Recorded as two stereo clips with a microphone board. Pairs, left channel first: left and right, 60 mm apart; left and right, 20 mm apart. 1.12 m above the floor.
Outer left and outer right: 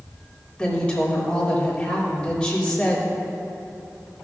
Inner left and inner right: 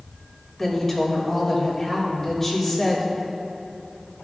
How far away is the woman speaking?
About 3 m.